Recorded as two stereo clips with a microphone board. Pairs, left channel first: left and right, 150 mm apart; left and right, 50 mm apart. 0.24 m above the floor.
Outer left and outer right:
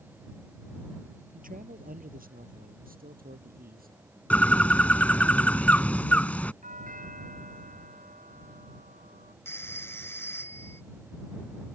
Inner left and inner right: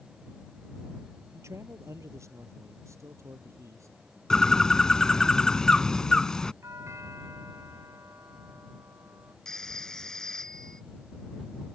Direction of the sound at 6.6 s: 65° right (ahead or behind).